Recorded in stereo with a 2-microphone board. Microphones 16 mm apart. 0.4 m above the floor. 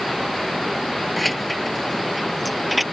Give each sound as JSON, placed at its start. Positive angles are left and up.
{"t": 1.2, "sound": "keys jangling", "side_deg": 5}